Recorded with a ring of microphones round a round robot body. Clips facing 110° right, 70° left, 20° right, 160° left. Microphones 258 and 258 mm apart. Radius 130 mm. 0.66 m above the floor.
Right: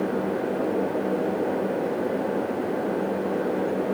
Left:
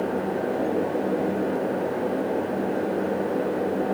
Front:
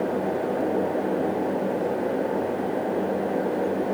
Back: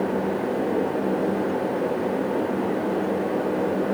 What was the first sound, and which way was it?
Only background noise.